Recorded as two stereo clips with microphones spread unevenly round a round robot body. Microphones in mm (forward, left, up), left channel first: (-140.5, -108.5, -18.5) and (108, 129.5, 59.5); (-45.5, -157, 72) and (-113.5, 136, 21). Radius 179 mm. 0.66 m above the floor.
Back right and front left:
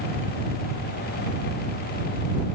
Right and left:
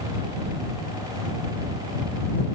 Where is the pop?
No pop in this recording.